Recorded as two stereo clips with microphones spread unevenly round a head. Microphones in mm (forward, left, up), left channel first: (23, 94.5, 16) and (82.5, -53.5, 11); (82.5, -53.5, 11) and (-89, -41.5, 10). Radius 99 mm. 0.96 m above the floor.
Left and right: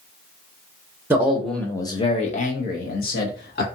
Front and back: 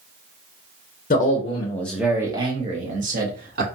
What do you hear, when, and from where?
1.1 s a man speaking: straight ahead, 0.7 m; by 3.6 s 140° left, 1.3 m